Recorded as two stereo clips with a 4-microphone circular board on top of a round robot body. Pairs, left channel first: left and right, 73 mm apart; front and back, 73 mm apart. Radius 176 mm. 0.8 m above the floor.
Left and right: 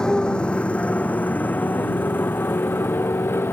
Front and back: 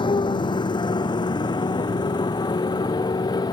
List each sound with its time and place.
0.0 s a motorcycle: 10° left; by 3.5 s 30° left